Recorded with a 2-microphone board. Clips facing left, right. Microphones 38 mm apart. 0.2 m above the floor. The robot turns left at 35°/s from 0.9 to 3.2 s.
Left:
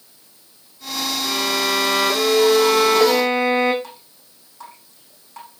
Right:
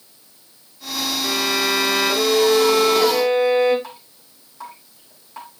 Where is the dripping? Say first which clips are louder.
Right 2 dB; 10° right (ahead or behind), 5.5 m.